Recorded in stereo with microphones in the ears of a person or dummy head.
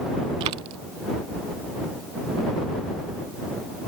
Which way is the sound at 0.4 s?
25° right (ahead or behind).